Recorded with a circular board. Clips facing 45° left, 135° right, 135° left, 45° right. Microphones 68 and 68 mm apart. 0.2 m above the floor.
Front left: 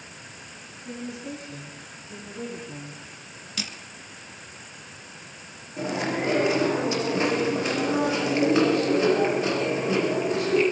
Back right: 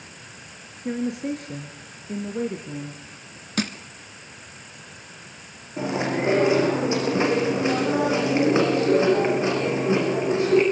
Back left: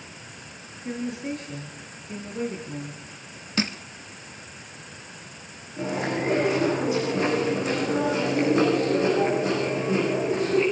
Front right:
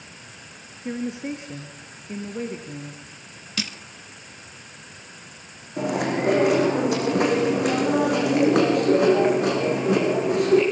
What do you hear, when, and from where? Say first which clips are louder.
0.8 s a woman speaking: back right 9 dB, front right 2 dB; 110° right, 3.5 m; by 3.0 s 115° right, 4.5 m
3.6 s crushing: back right 10 dB, back left 5 dB; 170° right, 1.1 m
5.8 s chewing: back right 2 dB, front right 3 dB; 70° right, 8.5 m